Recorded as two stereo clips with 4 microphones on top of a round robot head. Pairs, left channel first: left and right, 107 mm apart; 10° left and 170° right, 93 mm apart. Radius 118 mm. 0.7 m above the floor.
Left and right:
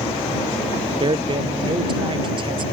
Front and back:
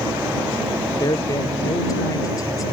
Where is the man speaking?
50° right.